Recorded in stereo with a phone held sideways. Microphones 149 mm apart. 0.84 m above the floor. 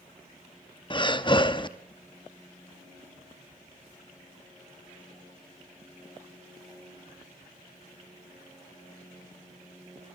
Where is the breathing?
30° left (ahead or behind), 0.9 m.